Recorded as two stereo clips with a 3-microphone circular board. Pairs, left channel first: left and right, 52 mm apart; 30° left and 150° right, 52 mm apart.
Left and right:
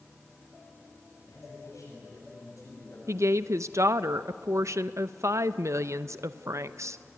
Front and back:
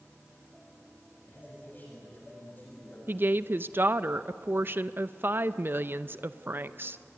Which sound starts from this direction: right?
A woman speaking, at 3.1 s.